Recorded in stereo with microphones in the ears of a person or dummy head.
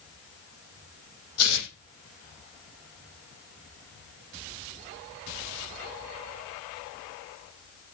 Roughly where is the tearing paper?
Left.